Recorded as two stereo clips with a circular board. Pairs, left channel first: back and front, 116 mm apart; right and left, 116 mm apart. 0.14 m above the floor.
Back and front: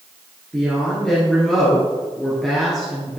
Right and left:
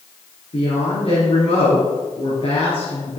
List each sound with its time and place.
0.5 s a woman speaking: 95° right, 3 m